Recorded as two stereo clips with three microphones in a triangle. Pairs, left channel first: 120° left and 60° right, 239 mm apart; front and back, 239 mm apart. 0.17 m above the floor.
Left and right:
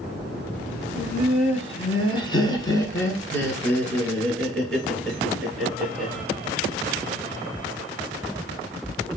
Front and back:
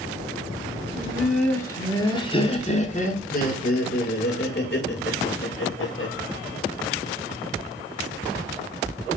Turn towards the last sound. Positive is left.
turn(degrees=30)